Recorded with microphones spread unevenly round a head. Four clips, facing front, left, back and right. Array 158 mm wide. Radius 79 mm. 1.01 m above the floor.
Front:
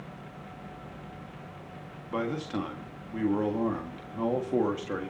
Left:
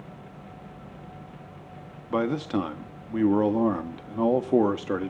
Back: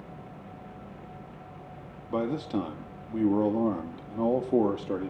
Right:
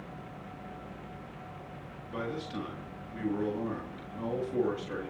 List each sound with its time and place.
2.1 s a man speaking: 110° left, 1.7 m